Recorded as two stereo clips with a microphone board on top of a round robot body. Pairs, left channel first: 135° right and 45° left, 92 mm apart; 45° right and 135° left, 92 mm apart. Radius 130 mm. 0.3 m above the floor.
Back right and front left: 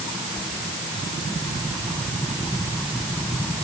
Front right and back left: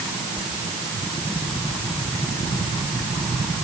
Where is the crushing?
No crushing in this recording.